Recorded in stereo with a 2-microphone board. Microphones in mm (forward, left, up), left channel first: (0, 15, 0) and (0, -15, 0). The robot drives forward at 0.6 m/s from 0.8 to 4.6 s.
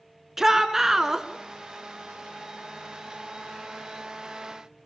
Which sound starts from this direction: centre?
A shout, at 0.4 s.